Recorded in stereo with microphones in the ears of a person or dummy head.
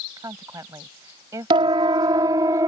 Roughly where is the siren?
Right.